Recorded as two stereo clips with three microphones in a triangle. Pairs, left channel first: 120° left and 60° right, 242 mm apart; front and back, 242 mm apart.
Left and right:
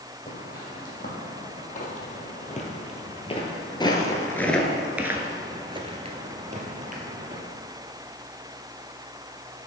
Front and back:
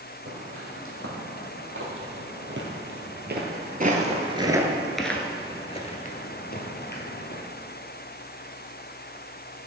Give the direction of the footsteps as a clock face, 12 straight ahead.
6 o'clock.